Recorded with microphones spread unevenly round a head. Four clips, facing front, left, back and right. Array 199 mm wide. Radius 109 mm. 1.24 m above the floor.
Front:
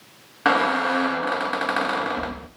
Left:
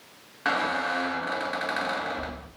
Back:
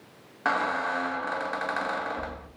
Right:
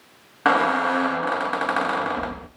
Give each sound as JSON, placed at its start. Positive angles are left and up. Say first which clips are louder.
{"t": 0.5, "sound": "a squeak", "louder": "right 8 dB, front 7 dB", "azimuth_deg": -45, "distance_m": 1.4}